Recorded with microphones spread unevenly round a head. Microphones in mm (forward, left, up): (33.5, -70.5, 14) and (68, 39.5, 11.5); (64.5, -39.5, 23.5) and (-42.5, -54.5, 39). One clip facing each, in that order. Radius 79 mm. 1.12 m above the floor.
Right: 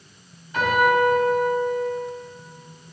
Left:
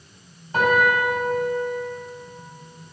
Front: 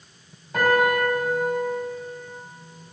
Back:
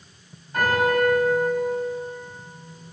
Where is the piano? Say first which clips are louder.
Even, front 1 dB; 20° left, 4.5 m.